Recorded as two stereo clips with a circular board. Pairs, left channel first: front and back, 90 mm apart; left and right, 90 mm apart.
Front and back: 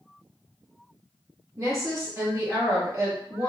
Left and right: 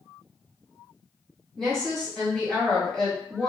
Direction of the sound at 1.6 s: 170° left.